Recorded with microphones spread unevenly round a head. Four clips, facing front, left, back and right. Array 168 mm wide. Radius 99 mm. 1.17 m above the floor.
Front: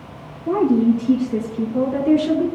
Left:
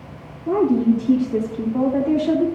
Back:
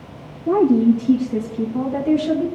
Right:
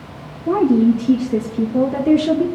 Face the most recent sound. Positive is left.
turn(degrees=-90)